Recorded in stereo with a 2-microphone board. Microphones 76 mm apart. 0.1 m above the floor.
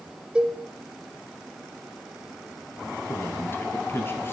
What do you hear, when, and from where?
0.3 s a cowbell: 15° right (ahead or behind), 0.8 m
3.1 s a man speaking: 30° left (ahead or behind), 1.5 m